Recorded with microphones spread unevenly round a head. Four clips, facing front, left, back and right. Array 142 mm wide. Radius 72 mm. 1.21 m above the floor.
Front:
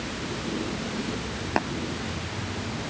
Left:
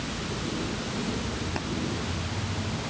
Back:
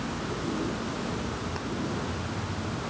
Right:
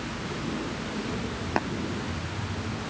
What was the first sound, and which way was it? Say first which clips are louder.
Tapping: right 11 dB, front 9 dB; 30° right.